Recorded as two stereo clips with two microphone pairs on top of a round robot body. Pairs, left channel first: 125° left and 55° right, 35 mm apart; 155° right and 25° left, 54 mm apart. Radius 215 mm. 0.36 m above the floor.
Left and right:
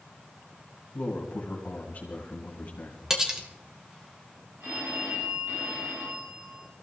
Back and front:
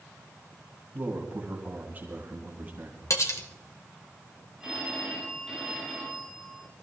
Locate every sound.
0.9 s a man speaking: 85° left, 3.5 m
3.1 s cutlery clinking: 135° right, 2 m
4.6 s a phone ringing: 55° right, 9 m